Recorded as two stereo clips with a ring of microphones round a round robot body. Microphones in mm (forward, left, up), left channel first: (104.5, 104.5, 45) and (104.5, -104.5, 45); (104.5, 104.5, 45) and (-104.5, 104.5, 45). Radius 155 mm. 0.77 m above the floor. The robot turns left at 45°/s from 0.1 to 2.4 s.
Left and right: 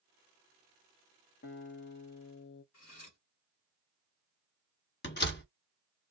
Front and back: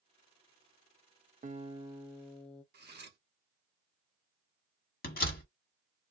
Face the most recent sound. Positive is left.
turn(degrees=50)